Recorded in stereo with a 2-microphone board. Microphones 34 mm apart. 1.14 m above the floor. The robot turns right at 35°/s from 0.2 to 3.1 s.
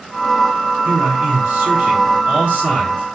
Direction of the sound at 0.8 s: 110° right.